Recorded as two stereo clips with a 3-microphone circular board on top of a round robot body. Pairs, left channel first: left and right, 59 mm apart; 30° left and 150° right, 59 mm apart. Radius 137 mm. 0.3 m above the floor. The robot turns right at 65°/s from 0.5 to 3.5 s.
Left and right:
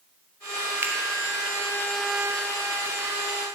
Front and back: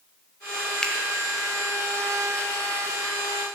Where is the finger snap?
50° right, 1.6 m; by 0.9 s 40° right, 1.6 m.